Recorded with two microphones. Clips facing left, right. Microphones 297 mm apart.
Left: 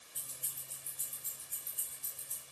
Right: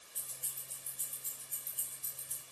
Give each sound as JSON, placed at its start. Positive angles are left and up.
{"t": 0.1, "sound": "keys jangling", "side_deg": 50, "distance_m": 1.7}